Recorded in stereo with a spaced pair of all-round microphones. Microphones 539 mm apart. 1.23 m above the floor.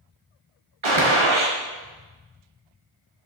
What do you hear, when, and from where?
0.8 s a gunshot: 60° right (ahead or behind), 1.2 m